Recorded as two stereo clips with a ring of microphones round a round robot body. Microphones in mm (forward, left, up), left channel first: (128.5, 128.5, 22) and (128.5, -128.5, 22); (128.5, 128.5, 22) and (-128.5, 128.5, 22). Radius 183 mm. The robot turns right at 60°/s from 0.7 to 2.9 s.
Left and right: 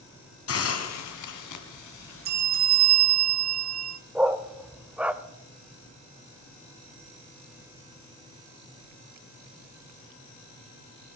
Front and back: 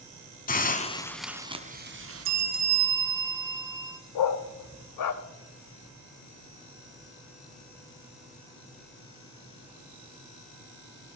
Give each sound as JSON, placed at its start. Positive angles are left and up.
{"t": 0.5, "sound": "a hiss", "azimuth_deg": 60, "distance_m": 1.7}
{"t": 2.2, "sound": "a bell", "azimuth_deg": -140, "distance_m": 0.8}
{"t": 4.2, "sound": "a dog barking", "azimuth_deg": -5, "distance_m": 0.9}